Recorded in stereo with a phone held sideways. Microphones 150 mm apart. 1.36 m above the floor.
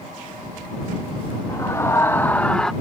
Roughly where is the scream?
Left.